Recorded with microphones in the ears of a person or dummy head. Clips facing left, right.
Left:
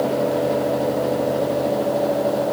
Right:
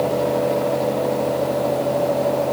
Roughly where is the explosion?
No explosion in this recording.